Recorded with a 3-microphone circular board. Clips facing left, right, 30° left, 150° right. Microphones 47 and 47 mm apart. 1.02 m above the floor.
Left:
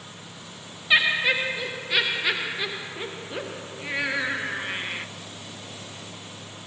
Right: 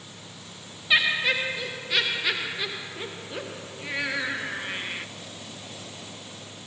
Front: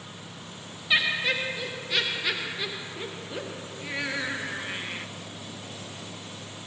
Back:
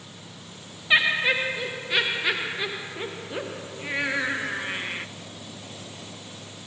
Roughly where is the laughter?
Behind.